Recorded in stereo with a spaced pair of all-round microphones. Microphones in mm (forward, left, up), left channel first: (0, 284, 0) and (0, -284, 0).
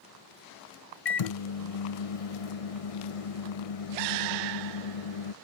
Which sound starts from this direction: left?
A microwave, at 1.1 s.